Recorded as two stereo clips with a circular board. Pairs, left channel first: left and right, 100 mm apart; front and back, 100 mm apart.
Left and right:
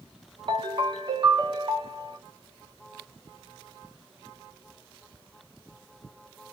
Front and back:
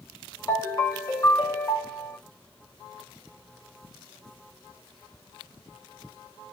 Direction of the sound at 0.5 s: 55° right.